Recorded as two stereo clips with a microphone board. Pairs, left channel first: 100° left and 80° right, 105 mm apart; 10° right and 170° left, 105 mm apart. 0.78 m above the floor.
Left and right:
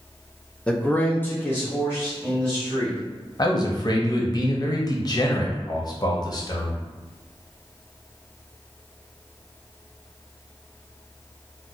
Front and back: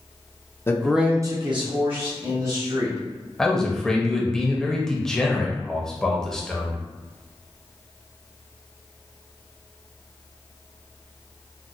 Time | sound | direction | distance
0.7 | a man speaking | 30° left | 0.5 m
3.4 | a man speaking | 70° left | 0.5 m